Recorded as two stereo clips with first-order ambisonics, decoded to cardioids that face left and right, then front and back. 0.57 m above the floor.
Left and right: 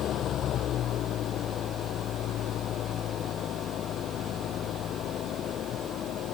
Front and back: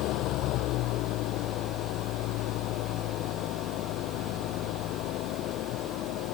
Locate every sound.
0.0 s an engine running: 35° left